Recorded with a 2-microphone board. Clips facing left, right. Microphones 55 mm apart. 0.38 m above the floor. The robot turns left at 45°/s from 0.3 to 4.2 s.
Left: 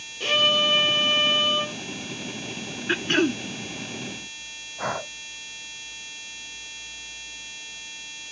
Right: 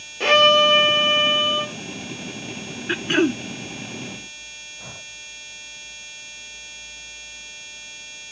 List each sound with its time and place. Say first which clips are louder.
0.2 s a violin: right 8 dB; 115° right; by 1.8 s straight behind
2.9 s throat clearing: right 2 dB; centre (ahead or behind); by 3.4 s 20° right (ahead or behind)
4.8 s breathing: left 16 dB; 65° left (ahead or behind)